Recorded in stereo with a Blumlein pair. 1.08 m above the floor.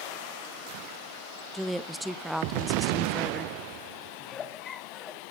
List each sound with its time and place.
1.5 s a woman speaking: straight ahead, 0.6 m
4.2 s a giggle: 25° left, 1.3 m